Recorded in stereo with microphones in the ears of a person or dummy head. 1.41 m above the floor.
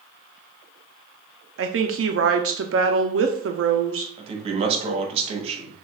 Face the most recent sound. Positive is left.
turn(degrees=-40)  # may be behind; listen again after turning